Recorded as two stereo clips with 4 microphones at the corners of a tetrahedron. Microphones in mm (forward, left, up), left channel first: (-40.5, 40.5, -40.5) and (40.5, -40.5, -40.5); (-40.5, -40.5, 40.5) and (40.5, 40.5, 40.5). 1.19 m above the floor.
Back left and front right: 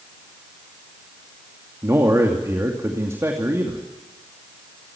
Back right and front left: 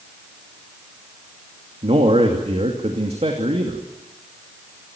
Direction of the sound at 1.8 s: 20° left.